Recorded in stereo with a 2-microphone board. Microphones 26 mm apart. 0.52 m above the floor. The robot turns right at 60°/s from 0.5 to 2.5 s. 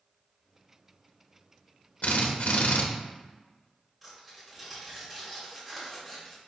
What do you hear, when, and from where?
2.0 s a drill: 65° left (ahead or behind), 0.7 m; by 2.8 s 75° left (ahead or behind), 0.7 m
4.0 s tearing paper: 5° right (ahead or behind), 1.6 m